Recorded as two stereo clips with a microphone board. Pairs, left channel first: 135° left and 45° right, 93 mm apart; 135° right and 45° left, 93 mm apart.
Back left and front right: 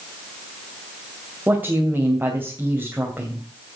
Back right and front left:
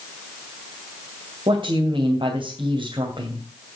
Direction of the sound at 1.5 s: 25° left.